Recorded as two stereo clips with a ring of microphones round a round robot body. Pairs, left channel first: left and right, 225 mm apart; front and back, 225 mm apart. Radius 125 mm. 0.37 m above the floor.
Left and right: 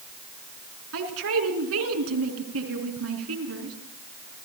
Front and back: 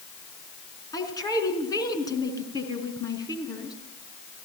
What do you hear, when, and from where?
0.9 s a man speaking: 75° right, 5 m